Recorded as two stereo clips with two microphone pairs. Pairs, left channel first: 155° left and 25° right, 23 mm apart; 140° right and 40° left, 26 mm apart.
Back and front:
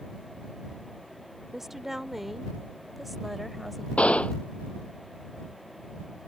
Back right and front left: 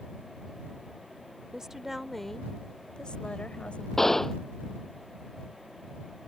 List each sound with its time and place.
1.5 s a woman speaking: 20° left; by 3.9 s 120° right
4.0 s a gunshot: 140° left